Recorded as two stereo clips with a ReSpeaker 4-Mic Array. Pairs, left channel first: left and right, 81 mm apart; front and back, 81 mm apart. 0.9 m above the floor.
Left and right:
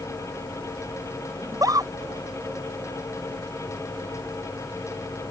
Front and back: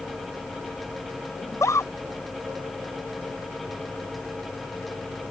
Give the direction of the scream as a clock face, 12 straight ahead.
2 o'clock.